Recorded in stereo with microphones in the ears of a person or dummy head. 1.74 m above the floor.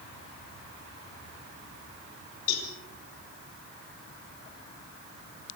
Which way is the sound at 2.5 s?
50° left (ahead or behind).